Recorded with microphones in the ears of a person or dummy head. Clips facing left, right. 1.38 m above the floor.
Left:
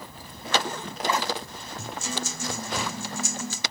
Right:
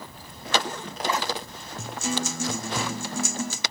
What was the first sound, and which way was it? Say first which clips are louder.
A guitar: right 5 dB; 60° right (ahead or behind).